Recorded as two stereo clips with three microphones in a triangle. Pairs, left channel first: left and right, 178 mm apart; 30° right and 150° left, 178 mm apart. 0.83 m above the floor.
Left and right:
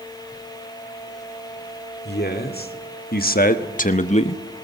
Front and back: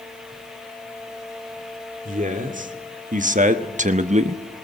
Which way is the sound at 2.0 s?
110° left.